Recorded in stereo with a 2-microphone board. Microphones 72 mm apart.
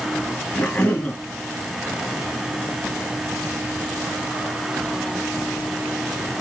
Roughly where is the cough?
Centre.